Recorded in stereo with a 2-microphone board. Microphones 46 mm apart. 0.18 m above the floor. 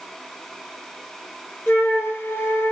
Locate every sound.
1.7 s a flute: 55° left (ahead or behind), 0.6 m